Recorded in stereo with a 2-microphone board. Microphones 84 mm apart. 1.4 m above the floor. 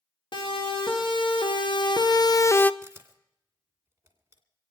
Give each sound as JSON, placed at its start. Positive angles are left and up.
{"t": 0.3, "sound": "a siren", "side_deg": 75, "distance_m": 2.5}
{"t": 2.8, "sound": "a camera shutter", "side_deg": -30, "distance_m": 2.0}